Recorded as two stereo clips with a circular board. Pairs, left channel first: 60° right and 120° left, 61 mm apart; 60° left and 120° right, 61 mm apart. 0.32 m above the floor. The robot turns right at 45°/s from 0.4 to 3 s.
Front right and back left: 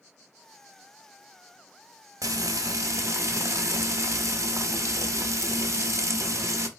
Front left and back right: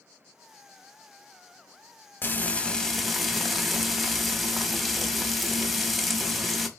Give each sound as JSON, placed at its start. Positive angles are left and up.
{"t": 2.2, "sound": "frying", "azimuth_deg": 115, "distance_m": 0.6}